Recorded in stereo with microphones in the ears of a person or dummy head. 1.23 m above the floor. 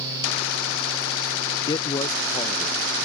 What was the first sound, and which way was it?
A man speaking, 25° left (ahead or behind).